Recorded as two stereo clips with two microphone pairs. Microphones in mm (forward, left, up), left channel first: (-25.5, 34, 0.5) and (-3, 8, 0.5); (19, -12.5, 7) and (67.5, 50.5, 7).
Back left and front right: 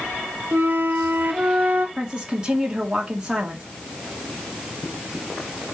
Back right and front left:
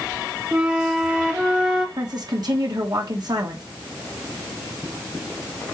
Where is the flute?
25° right, 1.2 m.